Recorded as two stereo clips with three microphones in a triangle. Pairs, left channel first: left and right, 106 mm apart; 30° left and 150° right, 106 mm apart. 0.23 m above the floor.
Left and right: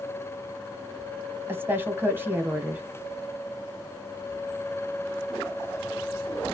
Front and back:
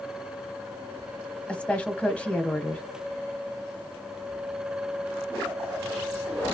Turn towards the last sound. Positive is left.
turn(degrees=-35)